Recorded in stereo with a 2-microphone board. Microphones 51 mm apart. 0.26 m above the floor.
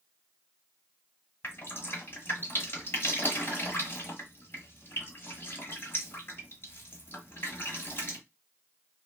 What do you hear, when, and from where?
1.4 s dripping: 45° left (ahead or behind), 1.2 m